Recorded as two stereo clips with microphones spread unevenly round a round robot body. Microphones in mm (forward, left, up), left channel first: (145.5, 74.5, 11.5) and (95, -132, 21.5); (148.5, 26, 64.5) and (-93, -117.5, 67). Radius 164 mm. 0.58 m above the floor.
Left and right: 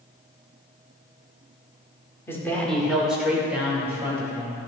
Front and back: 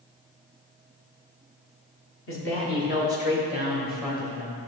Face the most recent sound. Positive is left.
turn(degrees=-30)